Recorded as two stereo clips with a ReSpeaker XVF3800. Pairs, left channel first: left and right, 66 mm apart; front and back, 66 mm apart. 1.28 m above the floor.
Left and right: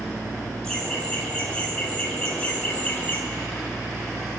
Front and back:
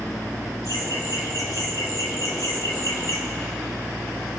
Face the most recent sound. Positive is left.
turn(degrees=25)